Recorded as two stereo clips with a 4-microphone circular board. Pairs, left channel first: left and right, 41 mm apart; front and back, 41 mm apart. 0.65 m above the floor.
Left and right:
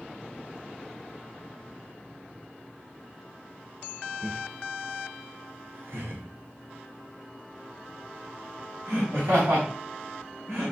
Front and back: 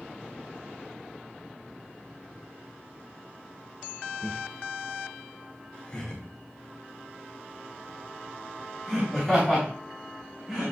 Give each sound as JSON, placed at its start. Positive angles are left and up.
{"t": 4.2, "sound": "laughter", "azimuth_deg": -45, "distance_m": 1.4}